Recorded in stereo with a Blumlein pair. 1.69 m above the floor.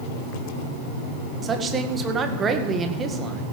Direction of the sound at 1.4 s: 20° right.